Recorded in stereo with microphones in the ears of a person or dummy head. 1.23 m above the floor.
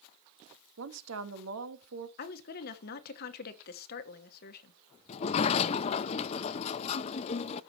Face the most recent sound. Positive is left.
turn(degrees=40)  # may be behind; listen again after turning